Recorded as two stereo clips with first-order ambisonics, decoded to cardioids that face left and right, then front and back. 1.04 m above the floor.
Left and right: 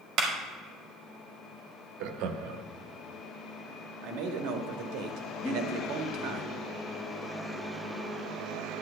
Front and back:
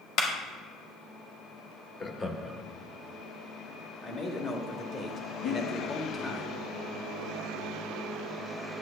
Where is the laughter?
70° right, 0.9 m.